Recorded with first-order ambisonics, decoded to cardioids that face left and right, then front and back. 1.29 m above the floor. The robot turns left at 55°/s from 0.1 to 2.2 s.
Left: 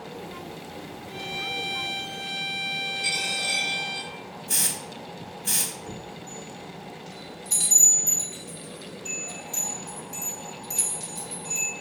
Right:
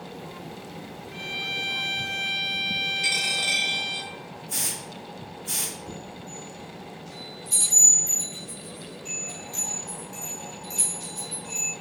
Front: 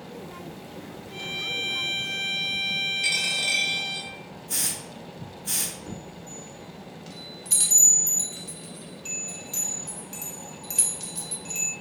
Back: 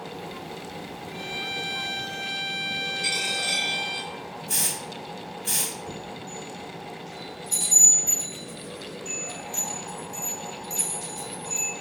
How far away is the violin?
About 1.4 m.